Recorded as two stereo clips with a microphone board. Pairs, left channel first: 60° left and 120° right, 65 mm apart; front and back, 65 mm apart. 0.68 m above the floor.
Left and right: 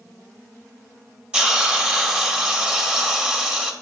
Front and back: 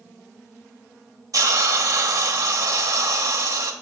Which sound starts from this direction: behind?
A hiss, at 1.3 s.